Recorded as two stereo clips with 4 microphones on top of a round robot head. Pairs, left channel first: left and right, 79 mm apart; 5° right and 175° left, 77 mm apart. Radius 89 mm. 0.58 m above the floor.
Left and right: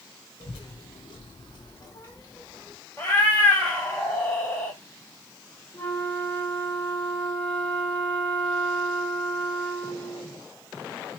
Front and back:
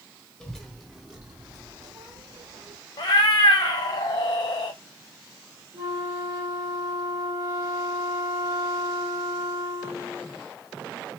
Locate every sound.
0.4 s a child speaking: 75° left, 0.8 m; by 2.8 s 160° left, 1.0 m
3.0 s a cat meowing: 15° left, 0.6 m
5.7 s a flute: 150° left, 1.5 m